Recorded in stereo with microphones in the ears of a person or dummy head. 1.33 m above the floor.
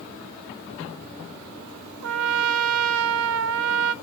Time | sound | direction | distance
2.0 | a trumpet | 75° right (ahead or behind) | 0.6 m